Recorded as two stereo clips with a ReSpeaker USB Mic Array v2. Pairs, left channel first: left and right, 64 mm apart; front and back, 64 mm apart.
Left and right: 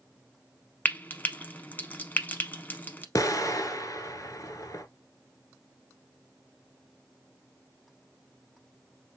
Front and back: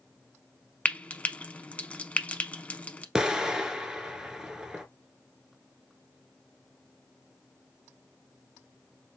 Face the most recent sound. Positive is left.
turn(degrees=100)